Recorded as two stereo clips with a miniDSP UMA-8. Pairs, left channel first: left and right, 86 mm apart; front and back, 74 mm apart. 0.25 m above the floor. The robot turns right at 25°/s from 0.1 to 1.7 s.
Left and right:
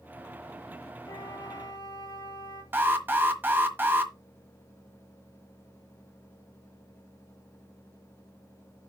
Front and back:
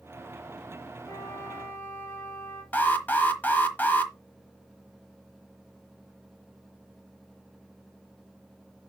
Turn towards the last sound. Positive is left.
turn(degrees=-45)